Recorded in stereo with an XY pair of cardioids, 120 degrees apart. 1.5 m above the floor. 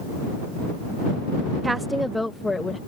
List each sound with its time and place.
1.6 s a woman speaking: 20° right; by 2.8 s 20° left